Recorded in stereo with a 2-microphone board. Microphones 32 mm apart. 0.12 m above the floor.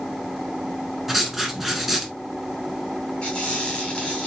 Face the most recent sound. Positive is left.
turn(degrees=35)  # may be behind; listen again after turning